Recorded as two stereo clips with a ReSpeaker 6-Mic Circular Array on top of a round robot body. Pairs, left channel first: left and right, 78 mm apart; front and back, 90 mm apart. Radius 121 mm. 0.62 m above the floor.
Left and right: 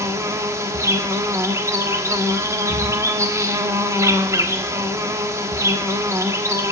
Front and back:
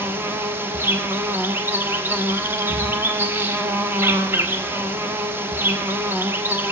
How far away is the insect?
About 1.1 m.